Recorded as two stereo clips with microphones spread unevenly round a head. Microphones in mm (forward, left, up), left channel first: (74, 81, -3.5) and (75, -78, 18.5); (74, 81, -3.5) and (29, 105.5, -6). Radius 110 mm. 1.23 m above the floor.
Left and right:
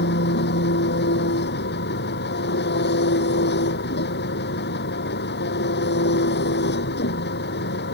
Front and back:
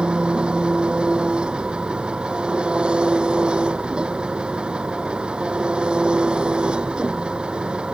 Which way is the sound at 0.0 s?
80° left.